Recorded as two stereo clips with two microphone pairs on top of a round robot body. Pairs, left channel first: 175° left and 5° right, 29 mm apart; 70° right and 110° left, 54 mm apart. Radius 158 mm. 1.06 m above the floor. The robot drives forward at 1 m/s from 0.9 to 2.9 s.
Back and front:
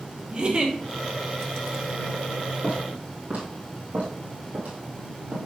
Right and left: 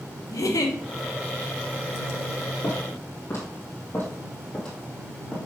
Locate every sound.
0.3 s a giggle: 65° right, 1.1 m
2.6 s footsteps: 35° right, 2.5 m; by 5.4 s 10° left, 1.8 m